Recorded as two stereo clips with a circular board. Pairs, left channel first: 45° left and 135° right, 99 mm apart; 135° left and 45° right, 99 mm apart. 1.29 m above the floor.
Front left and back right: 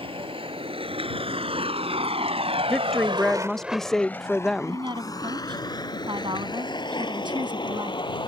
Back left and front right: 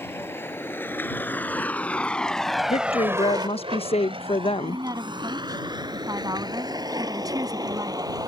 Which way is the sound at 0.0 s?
160° right.